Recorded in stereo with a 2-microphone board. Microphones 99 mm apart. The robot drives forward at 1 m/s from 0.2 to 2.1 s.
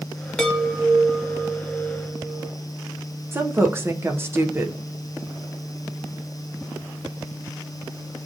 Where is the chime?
10° left (ahead or behind), 0.9 m; by 2.5 s 5° left (ahead or behind), 2.5 m.